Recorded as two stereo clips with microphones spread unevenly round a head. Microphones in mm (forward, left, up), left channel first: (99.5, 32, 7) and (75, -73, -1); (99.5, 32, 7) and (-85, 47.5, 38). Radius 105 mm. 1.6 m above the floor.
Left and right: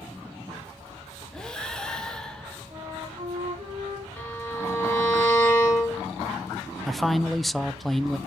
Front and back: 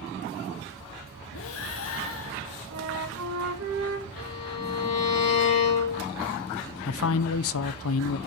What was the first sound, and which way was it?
Breathing, 5° right.